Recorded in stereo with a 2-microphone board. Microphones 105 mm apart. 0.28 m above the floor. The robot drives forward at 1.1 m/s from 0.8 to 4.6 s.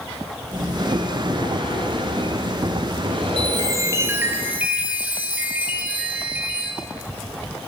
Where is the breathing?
40° right (ahead or behind), 3 m.